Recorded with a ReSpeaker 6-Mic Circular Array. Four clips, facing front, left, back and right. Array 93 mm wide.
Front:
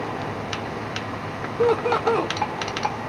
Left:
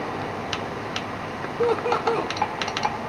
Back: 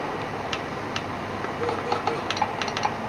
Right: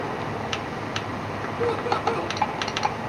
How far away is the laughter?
About 1.4 m.